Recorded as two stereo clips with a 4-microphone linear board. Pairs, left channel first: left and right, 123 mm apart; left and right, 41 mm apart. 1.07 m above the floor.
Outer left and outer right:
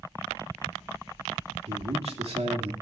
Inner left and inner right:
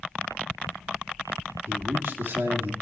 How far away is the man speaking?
About 3 m.